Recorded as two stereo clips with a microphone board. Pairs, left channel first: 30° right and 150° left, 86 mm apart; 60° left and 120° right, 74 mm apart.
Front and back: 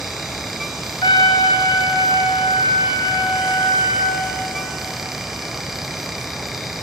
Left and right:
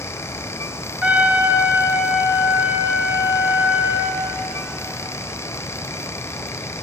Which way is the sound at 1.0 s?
45° right.